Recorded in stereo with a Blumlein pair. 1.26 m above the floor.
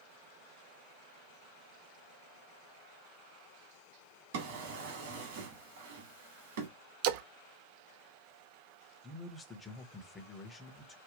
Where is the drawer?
55° right, 2.0 m.